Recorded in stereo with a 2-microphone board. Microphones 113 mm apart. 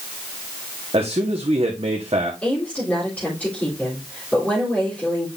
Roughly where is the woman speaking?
Centre.